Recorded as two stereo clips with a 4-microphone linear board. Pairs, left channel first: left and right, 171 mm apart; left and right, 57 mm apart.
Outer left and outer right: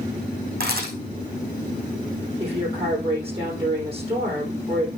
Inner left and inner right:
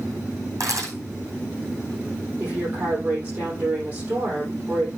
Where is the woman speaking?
35° right (ahead or behind), 5.5 m.